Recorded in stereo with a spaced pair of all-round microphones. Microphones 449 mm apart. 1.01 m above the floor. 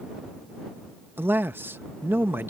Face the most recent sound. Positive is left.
turn(degrees=-5)  # may be behind; listen again after turning